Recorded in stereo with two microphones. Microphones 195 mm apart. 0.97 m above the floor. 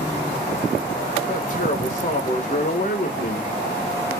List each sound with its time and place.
1.3 s a man speaking: 40° left (ahead or behind), 0.7 m